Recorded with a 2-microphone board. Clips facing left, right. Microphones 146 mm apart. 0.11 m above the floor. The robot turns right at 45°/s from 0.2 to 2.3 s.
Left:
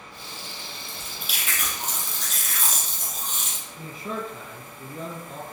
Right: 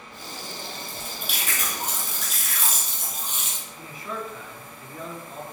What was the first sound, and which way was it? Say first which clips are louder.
Chewing: right 3 dB; 75° right.